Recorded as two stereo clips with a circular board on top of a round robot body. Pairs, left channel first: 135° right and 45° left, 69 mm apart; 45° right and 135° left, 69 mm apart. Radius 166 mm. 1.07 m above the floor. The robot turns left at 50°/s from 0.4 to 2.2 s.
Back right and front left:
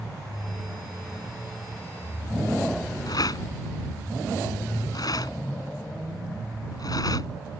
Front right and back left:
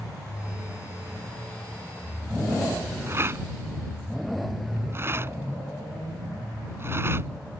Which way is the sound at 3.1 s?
170° right.